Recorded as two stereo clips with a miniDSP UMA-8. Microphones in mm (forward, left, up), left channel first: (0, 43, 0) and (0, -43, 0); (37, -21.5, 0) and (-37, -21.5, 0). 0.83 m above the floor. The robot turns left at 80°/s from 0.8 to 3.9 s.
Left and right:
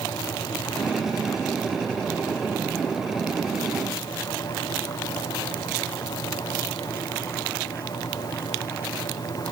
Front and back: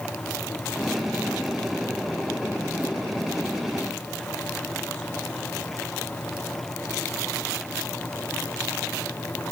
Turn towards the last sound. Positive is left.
No sound to turn to.